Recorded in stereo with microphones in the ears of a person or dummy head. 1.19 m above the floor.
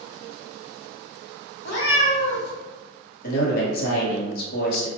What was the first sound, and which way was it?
A cat meowing, 65° left (ahead or behind).